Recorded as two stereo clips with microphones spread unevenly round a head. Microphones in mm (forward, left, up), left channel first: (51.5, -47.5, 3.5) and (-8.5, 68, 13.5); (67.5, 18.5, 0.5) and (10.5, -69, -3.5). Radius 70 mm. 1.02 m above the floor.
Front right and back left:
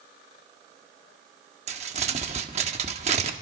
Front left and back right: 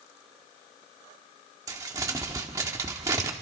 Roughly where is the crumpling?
Behind.